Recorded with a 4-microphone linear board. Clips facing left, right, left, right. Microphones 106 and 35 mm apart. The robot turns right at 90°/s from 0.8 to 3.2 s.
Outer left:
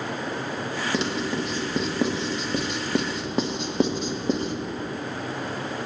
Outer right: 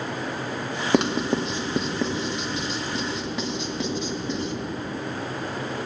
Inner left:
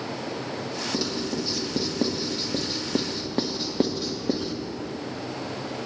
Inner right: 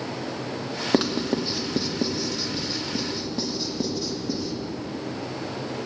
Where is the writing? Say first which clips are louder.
Outer right 7 dB, inner right 7 dB; 55° right (ahead or behind), 1.1 m; by 4.5 s 45° left (ahead or behind), 1.1 m.